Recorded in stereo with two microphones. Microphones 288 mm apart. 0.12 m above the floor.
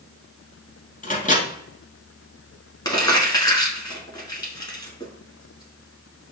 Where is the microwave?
25° left (ahead or behind), 1.0 m.